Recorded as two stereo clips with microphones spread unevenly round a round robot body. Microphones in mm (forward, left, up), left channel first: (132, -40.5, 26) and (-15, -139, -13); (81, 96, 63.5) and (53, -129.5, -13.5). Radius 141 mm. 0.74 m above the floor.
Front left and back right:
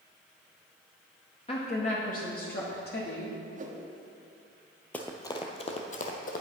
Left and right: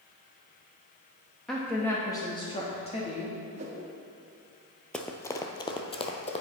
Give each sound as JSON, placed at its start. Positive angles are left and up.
{"t": 1.5, "sound": "a woman speaking", "azimuth_deg": -25, "distance_m": 1.3}
{"t": 3.5, "sound": "a whoosh", "azimuth_deg": -135, "distance_m": 1.2}
{"t": 4.9, "sound": "running footsteps", "azimuth_deg": 65, "distance_m": 0.7}